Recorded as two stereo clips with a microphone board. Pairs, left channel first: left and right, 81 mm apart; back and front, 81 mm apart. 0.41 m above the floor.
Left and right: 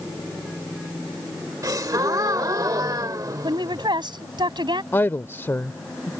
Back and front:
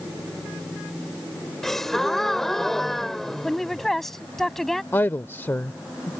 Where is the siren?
I don't hear a siren.